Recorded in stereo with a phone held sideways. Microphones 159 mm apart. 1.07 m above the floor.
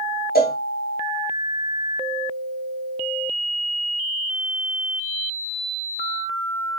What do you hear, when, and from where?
0.3 s a cowbell: 75° left (ahead or behind), 0.7 m